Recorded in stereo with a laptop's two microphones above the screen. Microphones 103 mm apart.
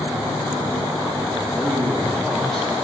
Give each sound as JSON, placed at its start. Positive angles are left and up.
{"t": 1.5, "sound": "a man speaking", "side_deg": -15, "distance_m": 1.2}